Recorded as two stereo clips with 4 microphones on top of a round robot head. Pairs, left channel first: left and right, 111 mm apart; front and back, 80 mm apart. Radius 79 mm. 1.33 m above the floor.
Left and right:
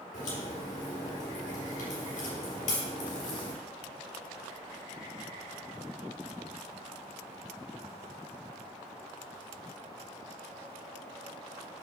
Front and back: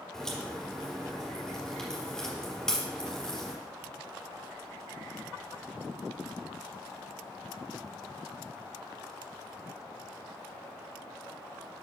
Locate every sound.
0.1 s a crack: 80° left, 3.5 m